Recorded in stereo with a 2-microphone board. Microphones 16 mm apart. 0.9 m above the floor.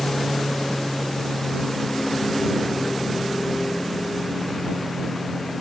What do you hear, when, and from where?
0.0 s a lawn mower: 60° left (ahead or behind); by 5.6 s 50° left (ahead or behind)